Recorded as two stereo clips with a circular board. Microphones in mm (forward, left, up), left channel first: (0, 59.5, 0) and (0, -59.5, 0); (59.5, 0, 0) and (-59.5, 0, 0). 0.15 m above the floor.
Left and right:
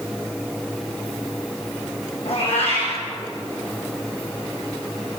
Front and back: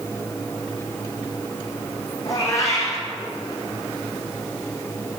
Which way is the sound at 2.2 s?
60° left.